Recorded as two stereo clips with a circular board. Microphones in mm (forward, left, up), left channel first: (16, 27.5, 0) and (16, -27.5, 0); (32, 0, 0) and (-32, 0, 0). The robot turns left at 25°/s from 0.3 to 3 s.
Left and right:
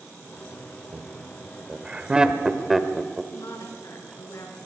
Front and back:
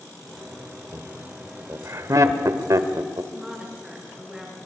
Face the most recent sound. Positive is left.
turn(degrees=100)